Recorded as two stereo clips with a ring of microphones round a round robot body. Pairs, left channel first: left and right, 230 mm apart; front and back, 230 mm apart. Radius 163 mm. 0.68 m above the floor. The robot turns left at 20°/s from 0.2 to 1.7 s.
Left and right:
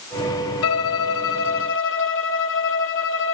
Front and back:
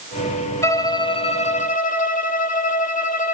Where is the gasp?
No gasp in this recording.